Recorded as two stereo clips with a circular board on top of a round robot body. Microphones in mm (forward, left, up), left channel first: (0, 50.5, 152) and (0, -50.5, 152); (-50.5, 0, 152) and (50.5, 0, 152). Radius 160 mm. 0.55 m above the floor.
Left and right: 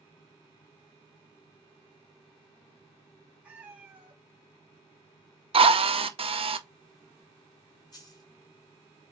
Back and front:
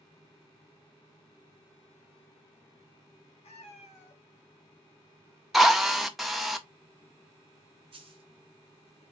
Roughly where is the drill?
Right.